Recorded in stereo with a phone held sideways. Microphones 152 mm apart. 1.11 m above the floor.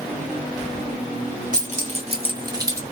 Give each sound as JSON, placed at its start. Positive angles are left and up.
{"t": 1.5, "sound": "keys jangling", "side_deg": -60, "distance_m": 1.1}